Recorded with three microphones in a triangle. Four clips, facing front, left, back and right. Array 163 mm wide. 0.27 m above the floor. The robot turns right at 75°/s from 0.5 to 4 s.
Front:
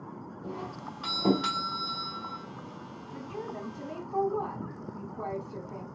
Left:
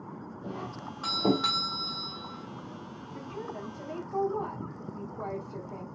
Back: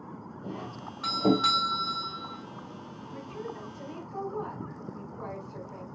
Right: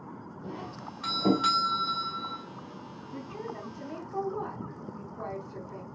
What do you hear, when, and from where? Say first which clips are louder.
0.4 s a doorbell: left 1 dB, front 1 dB; 95° left, 1.8 m; by 2.4 s 120° right, 1.8 m
3.1 s a woman speaking: right 1 dB, front 1 dB; 35° right, 2.5 m; by 5.8 s 30° left, 2.5 m